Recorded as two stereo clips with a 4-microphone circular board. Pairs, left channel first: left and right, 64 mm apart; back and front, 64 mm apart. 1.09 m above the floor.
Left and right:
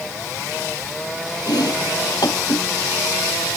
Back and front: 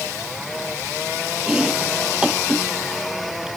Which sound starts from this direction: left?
Chopping, at 1.5 s.